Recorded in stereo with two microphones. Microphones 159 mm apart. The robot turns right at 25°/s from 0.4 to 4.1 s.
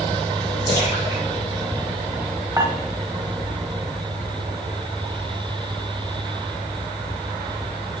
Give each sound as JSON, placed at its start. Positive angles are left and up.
{"t": 0.7, "sound": "a splash", "side_deg": -30, "distance_m": 6.0}
{"t": 2.6, "sound": "dishes clattering", "side_deg": -20, "distance_m": 1.0}